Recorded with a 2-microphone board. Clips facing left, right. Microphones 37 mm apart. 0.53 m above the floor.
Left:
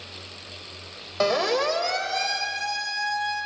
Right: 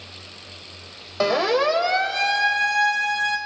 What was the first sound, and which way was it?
A siren, 5° right (ahead or behind).